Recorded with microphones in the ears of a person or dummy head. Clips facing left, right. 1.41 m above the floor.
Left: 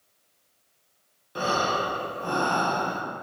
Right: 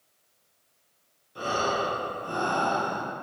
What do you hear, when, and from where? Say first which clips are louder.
1.4 s breathing: left 2 dB; 80° left, 1.1 m